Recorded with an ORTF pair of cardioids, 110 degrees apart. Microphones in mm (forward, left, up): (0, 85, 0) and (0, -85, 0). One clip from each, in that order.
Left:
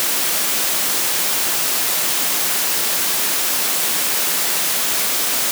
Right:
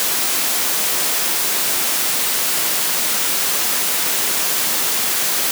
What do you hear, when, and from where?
Only background noise.